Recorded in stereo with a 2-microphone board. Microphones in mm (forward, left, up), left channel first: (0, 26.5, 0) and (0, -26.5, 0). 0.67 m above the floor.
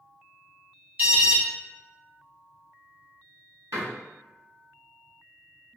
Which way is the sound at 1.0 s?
35° right (ahead or behind).